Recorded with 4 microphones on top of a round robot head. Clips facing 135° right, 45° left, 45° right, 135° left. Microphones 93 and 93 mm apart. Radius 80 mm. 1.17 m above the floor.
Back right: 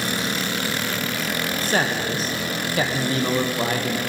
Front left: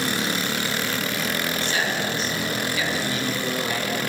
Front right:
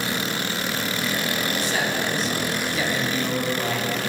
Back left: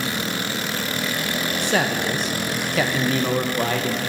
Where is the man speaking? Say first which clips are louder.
Back right 6 dB, back left 3 dB; 170° left, 0.8 m.